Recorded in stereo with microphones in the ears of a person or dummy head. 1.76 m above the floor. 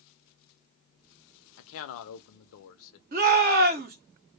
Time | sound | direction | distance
1.6 | a man speaking | 80° left | 0.5 m
3.1 | a shout | 45° right (ahead or behind) | 0.7 m